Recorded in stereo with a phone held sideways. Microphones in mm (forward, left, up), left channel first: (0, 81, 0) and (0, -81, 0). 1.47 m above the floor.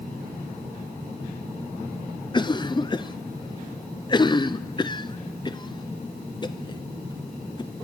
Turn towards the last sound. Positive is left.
turn(degrees=30)  # may be behind; listen again after turning